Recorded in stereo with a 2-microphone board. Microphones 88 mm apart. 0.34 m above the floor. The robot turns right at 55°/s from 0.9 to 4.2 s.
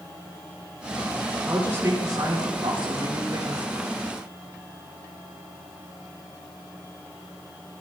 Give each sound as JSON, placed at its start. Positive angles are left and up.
{"t": 1.4, "sound": "a woman speaking", "azimuth_deg": -170, "distance_m": 5.0}